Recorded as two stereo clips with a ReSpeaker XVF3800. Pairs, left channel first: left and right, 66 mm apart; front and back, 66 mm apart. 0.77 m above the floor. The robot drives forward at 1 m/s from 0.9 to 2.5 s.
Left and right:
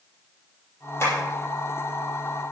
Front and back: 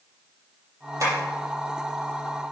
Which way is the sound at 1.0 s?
140° left.